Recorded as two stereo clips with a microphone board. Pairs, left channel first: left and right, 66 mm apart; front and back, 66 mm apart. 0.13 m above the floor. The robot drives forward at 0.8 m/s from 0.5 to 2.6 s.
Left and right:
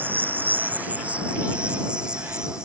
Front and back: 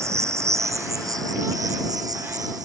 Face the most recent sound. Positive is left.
turn(degrees=-170)